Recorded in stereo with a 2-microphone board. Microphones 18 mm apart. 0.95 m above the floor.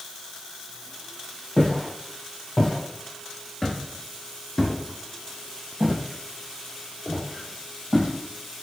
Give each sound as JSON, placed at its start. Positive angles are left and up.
{"t": 1.6, "sound": "footsteps", "side_deg": 40, "distance_m": 1.7}